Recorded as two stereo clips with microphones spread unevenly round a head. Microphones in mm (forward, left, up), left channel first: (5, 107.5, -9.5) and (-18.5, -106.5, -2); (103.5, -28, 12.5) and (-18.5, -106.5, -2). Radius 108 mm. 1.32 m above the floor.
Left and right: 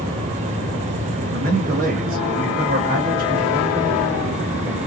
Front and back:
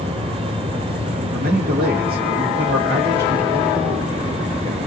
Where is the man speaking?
145° right, 1.6 m.